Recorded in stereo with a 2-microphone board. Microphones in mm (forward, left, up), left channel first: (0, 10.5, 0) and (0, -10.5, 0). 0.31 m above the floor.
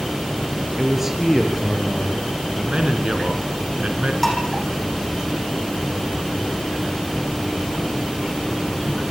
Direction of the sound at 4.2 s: 10° left (ahead or behind).